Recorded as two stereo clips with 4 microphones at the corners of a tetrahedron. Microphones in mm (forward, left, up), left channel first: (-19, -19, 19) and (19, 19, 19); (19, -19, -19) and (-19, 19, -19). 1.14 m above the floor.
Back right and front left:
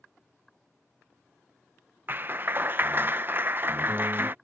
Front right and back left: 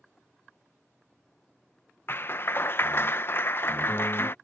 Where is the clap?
5° right.